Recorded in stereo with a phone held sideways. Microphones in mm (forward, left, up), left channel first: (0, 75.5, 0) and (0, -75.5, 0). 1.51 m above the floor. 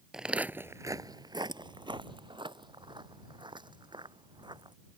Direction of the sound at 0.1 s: 5° right (ahead or behind).